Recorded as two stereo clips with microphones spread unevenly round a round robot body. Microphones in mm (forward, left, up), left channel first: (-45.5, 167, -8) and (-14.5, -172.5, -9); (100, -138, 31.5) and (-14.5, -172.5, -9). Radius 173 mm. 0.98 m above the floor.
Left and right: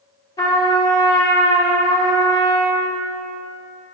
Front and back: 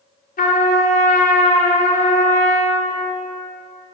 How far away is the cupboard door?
No cupboard door in this recording.